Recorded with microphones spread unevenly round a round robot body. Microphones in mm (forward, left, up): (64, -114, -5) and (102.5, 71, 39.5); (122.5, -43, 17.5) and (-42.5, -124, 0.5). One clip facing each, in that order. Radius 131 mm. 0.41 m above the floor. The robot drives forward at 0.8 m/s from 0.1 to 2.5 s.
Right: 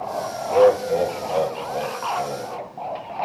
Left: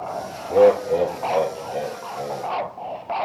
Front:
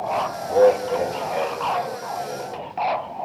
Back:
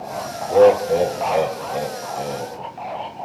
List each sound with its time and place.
0.5 s laughter: 150° left, 1.3 m; by 2.5 s 170° left, 2.5 m